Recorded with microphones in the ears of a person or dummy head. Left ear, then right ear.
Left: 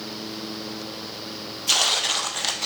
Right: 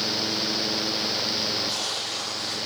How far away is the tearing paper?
About 0.6 m.